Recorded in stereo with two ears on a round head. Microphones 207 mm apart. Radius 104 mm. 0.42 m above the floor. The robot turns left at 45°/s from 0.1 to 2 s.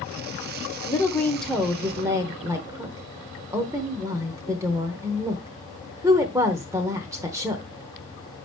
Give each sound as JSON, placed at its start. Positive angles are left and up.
{"t": 0.8, "sound": "a woman speaking", "azimuth_deg": 30, "distance_m": 1.0}